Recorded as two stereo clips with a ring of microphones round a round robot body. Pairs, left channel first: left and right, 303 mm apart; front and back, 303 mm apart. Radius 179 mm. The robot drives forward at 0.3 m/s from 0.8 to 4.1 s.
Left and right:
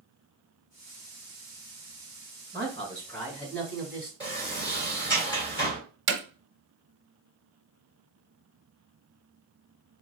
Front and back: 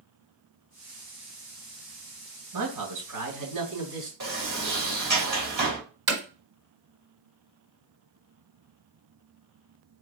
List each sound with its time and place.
2.5 s a man speaking: 175° left, 2.5 m
4.2 s a sliding door: 165° left, 2.5 m
6.1 s hammering: 135° right, 1.1 m